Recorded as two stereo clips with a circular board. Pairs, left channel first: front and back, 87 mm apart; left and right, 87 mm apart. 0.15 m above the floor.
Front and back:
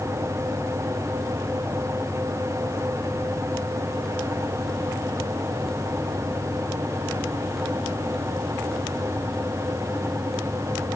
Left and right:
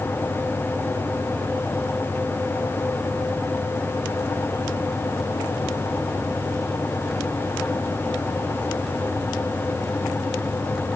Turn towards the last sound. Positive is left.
No sound to turn to.